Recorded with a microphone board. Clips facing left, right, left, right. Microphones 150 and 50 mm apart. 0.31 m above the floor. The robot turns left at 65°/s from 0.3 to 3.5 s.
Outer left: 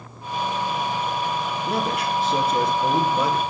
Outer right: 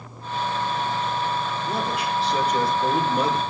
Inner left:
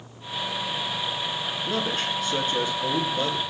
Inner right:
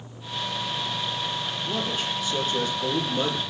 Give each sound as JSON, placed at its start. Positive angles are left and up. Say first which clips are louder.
{"t": 1.7, "sound": "a man speaking", "louder": "outer left 3 dB, inner left 2 dB", "azimuth_deg": 85, "distance_m": 4.0}